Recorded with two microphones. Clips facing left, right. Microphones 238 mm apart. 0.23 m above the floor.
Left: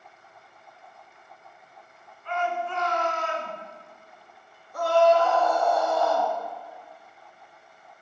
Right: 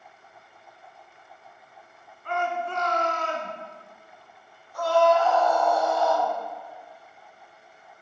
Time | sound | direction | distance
2.2 | a shout | 50° right (ahead or behind) | 2 m
4.7 | a scream | 60° left (ahead or behind) | 3 m